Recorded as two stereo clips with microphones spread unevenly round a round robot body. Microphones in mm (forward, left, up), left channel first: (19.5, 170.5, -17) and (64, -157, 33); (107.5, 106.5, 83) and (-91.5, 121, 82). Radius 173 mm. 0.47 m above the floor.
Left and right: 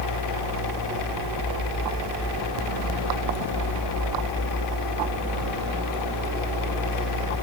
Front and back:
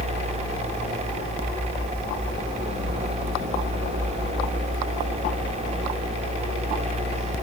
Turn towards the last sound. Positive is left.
No sound to turn to.